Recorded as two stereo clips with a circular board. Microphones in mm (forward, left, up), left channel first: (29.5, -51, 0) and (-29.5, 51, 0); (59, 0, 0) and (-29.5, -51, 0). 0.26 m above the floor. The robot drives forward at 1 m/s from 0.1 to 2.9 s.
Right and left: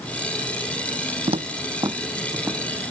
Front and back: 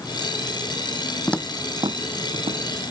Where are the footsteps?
95° left, 0.6 m; by 2.9 s 165° right, 3 m.